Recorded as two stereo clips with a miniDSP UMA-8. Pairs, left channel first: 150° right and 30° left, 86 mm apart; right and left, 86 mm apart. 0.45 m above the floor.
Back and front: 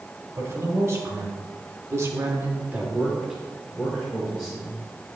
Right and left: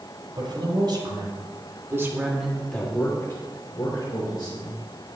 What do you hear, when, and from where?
0.3 s a man speaking: 85° left, 3.5 m; by 4.8 s 70° right, 4 m